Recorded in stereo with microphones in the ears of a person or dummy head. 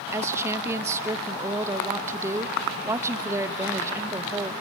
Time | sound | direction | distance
0.1 | a woman speaking | 15° right (ahead or behind) | 0.8 m